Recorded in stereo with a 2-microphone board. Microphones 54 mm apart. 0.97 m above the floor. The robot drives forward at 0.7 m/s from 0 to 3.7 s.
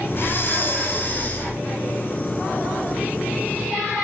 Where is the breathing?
45° left (ahead or behind), 2.5 m; by 1.5 s 35° left (ahead or behind), 3.5 m.